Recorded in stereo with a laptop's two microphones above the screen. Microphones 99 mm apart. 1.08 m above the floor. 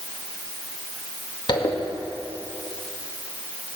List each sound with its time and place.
1.5 s a zipper: 50° left (ahead or behind), 2 m